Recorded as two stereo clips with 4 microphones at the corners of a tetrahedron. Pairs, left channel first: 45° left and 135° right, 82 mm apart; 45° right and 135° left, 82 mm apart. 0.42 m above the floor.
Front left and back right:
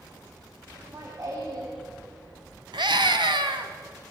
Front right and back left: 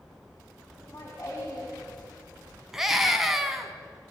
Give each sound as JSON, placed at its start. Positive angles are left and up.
{"t": 0.8, "sound": "laughter", "azimuth_deg": -95, "distance_m": 4.0}
{"t": 2.7, "sound": "a scream", "azimuth_deg": -140, "distance_m": 3.0}